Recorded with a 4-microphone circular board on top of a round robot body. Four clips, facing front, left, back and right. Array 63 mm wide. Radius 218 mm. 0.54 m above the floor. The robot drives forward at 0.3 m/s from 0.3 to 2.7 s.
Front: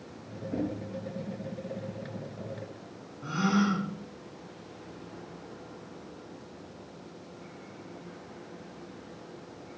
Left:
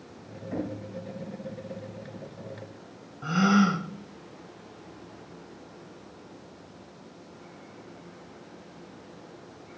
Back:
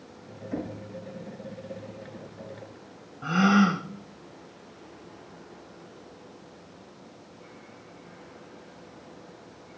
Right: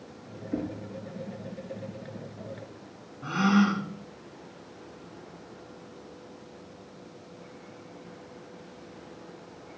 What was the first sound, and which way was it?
Knocking, 125° left.